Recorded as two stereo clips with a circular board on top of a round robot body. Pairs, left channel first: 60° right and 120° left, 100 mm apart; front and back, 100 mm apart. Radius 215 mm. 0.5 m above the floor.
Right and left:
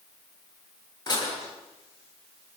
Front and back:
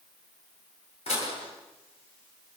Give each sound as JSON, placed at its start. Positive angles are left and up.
{"t": 1.1, "sound": "dishes clattering", "azimuth_deg": -10, "distance_m": 9.5}